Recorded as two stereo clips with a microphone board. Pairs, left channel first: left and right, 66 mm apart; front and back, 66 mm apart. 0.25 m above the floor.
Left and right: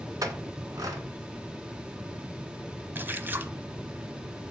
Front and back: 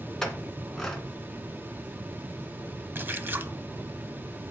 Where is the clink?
80° right, 1.5 m.